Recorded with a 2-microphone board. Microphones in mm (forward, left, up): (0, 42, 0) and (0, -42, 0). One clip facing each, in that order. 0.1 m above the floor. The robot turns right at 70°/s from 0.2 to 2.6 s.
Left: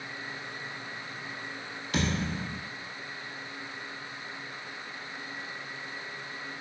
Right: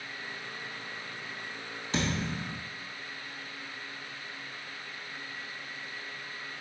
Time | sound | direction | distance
1.9 | a thud | 30° right | 1.3 m